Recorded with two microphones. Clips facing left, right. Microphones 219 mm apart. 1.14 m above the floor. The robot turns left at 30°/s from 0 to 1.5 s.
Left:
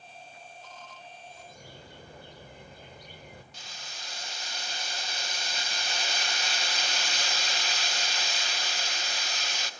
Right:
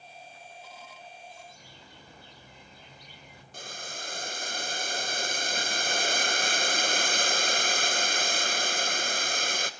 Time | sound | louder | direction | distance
1.3 | a bird | left 2 dB | 60° left (ahead or behind) | 2.0 m
3.5 | boiling | right 7 dB | 55° right (ahead or behind) | 0.7 m